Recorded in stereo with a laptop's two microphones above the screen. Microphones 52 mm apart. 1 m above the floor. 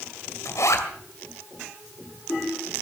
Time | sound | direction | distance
0.5 | a zipper | 70° left (ahead or behind) | 2 m